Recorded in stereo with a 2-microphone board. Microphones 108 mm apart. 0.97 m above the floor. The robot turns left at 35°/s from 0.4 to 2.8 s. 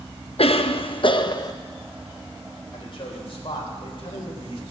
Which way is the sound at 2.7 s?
55° left (ahead or behind).